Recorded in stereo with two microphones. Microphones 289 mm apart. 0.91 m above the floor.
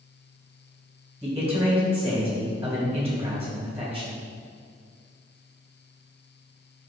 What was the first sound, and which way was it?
A man speaking, 5° right (ahead or behind).